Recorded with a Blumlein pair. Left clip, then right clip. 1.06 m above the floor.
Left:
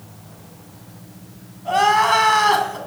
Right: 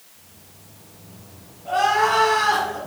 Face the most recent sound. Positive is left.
turn(degrees=70)